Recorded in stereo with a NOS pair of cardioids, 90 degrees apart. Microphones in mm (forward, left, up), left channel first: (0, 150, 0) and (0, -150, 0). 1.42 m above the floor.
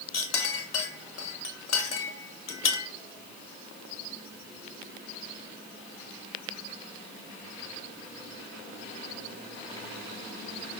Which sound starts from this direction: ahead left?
A clink, at 0.1 s.